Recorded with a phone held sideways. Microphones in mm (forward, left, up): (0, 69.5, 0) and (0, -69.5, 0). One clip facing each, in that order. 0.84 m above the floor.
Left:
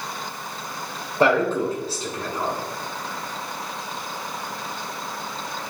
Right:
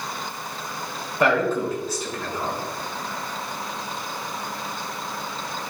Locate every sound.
1.2 s a man speaking: 30° left (ahead or behind), 3 m